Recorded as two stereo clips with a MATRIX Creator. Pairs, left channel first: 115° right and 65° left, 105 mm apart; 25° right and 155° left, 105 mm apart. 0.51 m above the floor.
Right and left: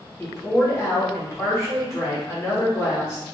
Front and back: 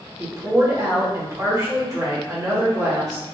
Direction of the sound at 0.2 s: 160° right.